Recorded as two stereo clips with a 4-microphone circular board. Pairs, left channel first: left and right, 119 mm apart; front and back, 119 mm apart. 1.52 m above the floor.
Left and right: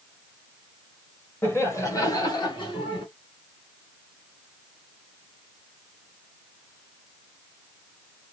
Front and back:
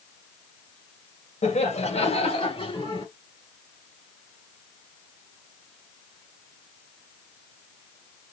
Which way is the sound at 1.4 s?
20° left.